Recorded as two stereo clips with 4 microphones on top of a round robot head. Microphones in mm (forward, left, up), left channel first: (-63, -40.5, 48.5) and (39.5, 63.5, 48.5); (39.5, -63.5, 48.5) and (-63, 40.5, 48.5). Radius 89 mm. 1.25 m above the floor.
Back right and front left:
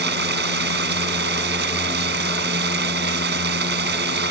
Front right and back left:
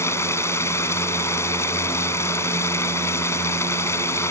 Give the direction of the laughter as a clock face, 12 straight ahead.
No laughter in this recording.